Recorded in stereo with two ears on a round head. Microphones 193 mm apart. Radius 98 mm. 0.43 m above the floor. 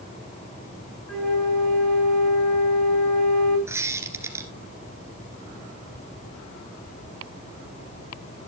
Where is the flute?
10° left (ahead or behind), 3.5 m.